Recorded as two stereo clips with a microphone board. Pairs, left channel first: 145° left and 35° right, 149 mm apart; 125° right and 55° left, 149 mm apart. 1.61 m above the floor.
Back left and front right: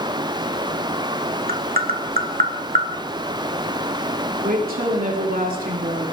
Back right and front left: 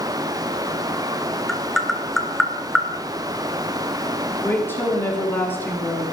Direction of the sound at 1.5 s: 35° right.